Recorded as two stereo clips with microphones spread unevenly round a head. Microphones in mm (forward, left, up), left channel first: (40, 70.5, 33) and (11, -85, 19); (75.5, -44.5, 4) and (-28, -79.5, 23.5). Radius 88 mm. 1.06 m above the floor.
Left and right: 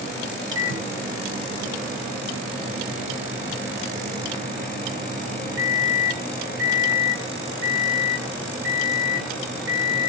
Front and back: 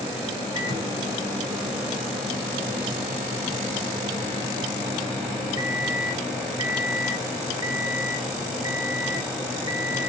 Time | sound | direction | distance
0.6 | a microwave | 110° right | 1.2 m